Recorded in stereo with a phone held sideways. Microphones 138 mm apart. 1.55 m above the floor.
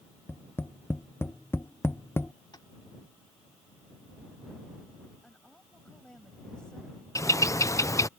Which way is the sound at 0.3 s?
15° left (ahead or behind).